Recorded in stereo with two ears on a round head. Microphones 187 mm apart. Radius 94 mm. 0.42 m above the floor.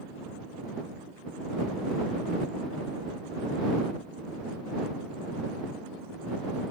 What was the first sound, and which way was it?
Only background noise.